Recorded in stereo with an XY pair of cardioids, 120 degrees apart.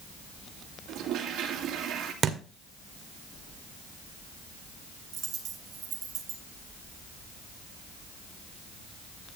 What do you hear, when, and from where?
0.9 s a toilet flushing: 70° right, 2.5 m
2.2 s a thud: 45° right, 1.9 m
5.1 s a dropped coin: 60° right, 2.5 m